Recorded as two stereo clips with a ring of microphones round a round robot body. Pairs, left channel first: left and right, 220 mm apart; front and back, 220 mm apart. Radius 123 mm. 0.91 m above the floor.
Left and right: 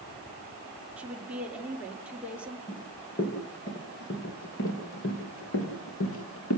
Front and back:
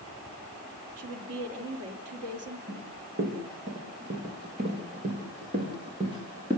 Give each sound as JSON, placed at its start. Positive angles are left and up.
{"t": 1.0, "sound": "a woman speaking", "azimuth_deg": -175, "distance_m": 2.5}
{"t": 2.7, "sound": "running footsteps", "azimuth_deg": 135, "distance_m": 6.0}